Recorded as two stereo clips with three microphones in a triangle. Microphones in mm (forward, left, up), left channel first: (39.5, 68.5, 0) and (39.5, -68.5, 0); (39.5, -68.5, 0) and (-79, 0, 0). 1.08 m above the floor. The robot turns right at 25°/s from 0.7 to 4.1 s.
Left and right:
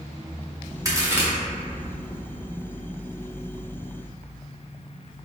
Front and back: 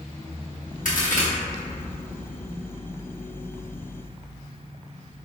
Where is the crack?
25° right, 0.8 m; by 1.3 s 15° right, 0.8 m.